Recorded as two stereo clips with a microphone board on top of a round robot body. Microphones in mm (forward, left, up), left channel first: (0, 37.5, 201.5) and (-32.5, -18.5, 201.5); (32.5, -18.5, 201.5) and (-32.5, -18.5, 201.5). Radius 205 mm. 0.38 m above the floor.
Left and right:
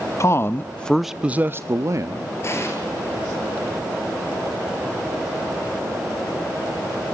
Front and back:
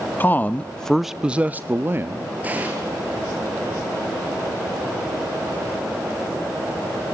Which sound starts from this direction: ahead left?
A man speaking, at 0.2 s.